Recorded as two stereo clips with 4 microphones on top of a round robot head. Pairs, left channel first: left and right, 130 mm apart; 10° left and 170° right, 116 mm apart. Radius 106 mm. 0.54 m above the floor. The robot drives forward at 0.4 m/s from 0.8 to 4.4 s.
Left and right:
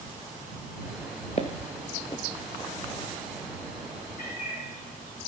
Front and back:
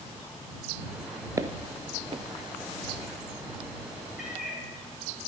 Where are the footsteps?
135° left, 0.6 m; by 2.2 s 155° left, 0.8 m.